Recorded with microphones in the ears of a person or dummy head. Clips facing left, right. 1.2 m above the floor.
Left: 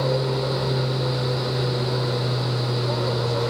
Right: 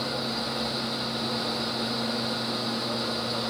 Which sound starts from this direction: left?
An aircraft, at 0.0 s.